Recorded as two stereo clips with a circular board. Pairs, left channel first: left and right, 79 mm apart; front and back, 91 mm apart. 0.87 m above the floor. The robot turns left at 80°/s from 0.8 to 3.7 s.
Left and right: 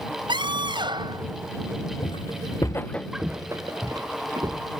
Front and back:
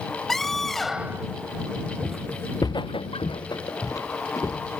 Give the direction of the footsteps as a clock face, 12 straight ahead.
9 o'clock.